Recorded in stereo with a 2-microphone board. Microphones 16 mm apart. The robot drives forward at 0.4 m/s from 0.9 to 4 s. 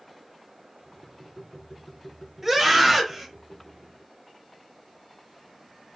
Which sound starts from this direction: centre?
A scream, at 2.4 s.